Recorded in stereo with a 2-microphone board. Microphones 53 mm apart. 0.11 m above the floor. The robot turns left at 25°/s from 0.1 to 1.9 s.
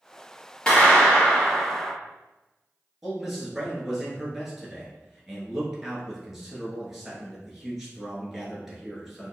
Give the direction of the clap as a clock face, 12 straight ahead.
11 o'clock.